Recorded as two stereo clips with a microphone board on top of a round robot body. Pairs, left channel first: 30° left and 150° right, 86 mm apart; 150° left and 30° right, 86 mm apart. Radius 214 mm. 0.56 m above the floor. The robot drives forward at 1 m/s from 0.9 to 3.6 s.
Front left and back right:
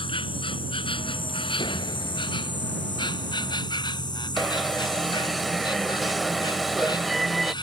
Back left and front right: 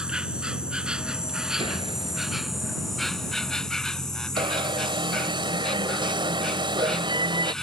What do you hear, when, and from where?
0.0 s an insect: 50° left; by 7.6 s 65° left
1.6 s a door slam: 5° right; by 2.4 s 10° right
4.4 s an alarm: 60° right